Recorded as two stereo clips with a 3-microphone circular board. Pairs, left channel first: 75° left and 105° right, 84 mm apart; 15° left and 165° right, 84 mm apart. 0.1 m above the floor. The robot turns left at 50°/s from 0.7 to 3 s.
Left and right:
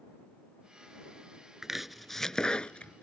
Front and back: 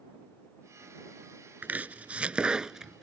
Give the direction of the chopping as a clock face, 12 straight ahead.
6 o'clock.